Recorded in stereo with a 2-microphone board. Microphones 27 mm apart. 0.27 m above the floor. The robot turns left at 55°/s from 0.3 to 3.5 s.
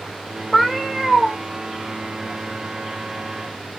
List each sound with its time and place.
0.5 s a cat meowing: centre (ahead or behind), 0.6 m; by 1.4 s 20° right (ahead or behind), 0.6 m